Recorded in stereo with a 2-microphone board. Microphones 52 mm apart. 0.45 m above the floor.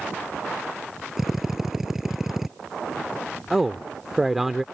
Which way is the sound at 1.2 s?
5° right (ahead or behind).